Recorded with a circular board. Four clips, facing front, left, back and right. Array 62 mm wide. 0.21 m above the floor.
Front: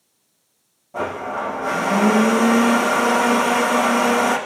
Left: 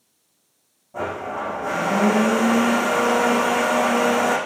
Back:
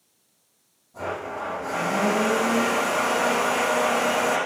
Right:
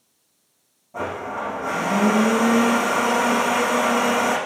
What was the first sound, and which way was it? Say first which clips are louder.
A blender: left 1 dB, front 6 dB; straight ahead.